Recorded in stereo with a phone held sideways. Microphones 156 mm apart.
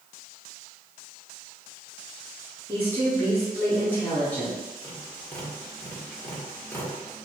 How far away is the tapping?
About 1.8 m.